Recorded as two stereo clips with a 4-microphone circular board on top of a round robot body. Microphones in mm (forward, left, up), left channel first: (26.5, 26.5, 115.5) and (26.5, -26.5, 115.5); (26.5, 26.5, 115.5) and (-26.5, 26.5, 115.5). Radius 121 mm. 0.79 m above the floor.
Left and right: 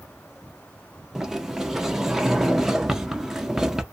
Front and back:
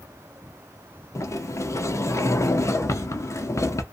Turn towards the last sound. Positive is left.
turn(degrees=-10)